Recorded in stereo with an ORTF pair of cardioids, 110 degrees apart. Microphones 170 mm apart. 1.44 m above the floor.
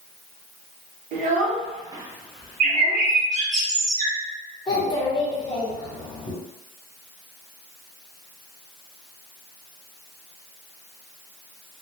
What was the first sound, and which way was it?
A child speaking, 60° right.